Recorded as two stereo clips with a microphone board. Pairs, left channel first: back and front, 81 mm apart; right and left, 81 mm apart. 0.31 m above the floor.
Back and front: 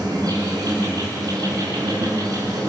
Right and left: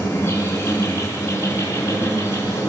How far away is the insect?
About 6 m.